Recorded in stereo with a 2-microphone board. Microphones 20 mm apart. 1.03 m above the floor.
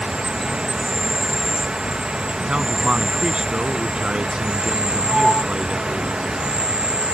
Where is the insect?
65° right (ahead or behind).